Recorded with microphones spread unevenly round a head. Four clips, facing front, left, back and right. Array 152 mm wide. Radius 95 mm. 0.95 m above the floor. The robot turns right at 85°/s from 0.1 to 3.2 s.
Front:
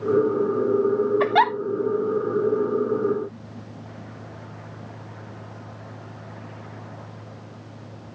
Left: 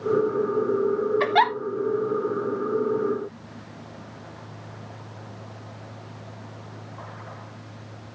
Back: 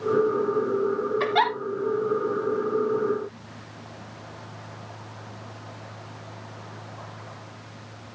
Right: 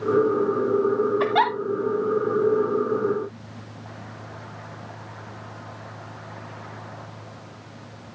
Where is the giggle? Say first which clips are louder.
Left 3 dB, front 3 dB; 5° right, 0.9 m; by 1.5 s 25° left, 0.9 m.